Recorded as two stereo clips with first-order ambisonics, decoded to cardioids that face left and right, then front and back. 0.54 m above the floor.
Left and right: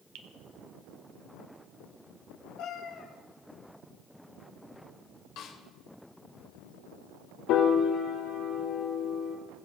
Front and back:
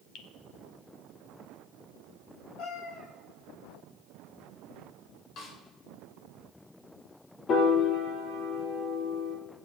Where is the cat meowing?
50° left, 4.5 m.